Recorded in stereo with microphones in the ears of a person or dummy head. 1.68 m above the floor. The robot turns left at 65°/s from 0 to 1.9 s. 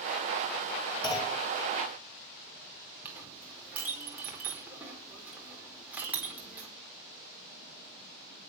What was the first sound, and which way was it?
A clunk, 30° left (ahead or behind).